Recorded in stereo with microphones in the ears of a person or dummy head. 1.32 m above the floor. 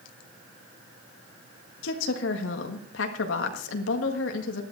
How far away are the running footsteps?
I don't hear running footsteps.